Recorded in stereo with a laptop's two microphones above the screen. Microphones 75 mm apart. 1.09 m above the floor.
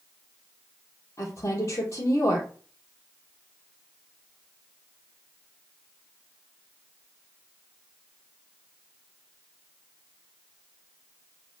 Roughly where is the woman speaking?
Left.